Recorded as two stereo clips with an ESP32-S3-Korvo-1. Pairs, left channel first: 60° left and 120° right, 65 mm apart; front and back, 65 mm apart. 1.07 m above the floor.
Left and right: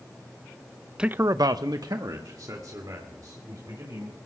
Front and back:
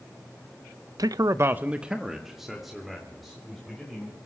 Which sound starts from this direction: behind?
A man speaking, at 1.0 s.